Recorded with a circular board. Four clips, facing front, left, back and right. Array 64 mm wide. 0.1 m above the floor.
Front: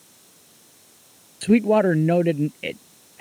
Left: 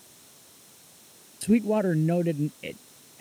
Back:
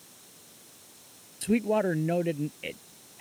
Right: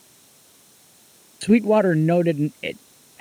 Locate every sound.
1.4 s a man speaking: 55° right